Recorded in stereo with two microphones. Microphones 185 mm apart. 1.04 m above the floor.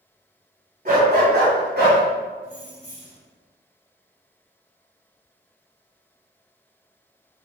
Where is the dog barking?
50° right (ahead or behind), 1.4 m; by 2.0 s 70° right (ahead or behind), 2 m.